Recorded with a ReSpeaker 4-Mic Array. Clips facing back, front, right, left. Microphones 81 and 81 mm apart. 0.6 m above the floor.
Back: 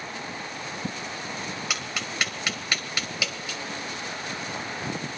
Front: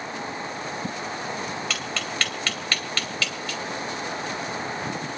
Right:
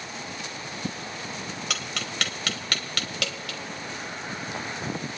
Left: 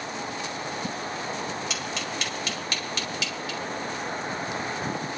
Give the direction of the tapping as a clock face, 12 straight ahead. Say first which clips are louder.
Front 2 dB, left 2 dB; 3 o'clock.